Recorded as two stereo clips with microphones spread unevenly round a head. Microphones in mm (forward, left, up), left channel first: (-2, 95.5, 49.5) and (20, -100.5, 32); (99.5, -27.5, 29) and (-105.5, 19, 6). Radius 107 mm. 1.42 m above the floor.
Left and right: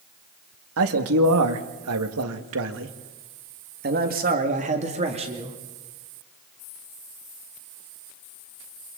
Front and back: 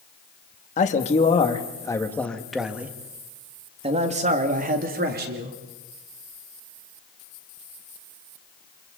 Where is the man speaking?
70° right, 2 m; by 5.6 s 150° right, 2.5 m.